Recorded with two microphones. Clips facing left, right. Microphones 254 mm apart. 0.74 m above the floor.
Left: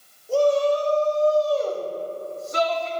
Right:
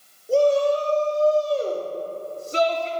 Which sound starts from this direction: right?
A shout, at 0.3 s.